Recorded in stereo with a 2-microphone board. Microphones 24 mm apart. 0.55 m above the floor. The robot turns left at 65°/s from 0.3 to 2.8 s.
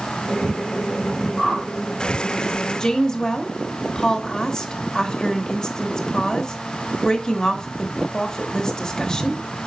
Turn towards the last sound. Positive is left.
turn(degrees=25)  # may be behind; listen again after turning